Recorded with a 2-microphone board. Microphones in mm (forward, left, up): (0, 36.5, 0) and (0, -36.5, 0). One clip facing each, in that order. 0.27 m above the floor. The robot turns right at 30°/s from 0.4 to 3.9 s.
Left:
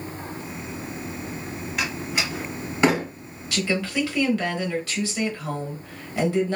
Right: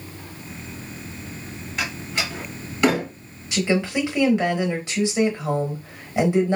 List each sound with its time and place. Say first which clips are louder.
1.8 s a door slam: even; 5° left (ahead or behind), 1.6 m; by 3.1 s 35° left (ahead or behind), 1.6 m
3.5 s a woman speaking: right 3 dB; 20° right (ahead or behind), 0.9 m